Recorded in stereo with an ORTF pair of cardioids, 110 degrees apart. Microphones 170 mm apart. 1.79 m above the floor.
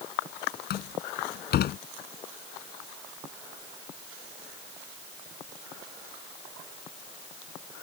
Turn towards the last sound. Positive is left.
turn(degrees=60)